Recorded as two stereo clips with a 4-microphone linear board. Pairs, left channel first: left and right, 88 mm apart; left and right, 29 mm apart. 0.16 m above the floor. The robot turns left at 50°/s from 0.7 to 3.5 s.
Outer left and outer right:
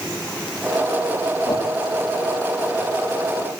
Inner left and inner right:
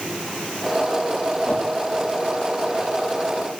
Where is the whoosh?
50° left (ahead or behind), 6 m; by 1.7 s 60° left (ahead or behind), 6 m.